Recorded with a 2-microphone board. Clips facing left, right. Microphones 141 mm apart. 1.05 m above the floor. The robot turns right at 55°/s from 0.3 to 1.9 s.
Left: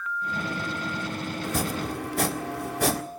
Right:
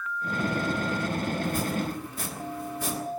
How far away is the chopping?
About 1.9 m.